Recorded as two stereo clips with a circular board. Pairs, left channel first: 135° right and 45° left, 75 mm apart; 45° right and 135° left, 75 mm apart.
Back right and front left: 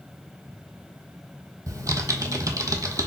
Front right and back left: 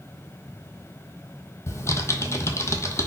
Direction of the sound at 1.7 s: 5° left.